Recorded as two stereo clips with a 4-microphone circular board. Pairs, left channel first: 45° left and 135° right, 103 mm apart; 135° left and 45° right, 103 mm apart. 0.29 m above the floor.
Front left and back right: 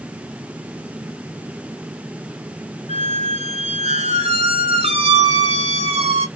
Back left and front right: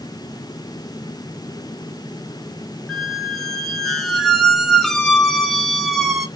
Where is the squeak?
135° right, 1.6 m.